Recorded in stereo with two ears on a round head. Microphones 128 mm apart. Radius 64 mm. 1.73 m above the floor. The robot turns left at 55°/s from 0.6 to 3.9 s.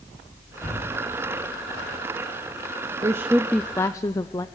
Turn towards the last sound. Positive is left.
turn(degrees=155)